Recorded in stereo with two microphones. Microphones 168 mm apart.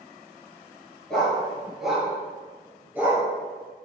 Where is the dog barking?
5° left (ahead or behind), 3.5 m; by 3.2 s 15° right (ahead or behind), 3.5 m.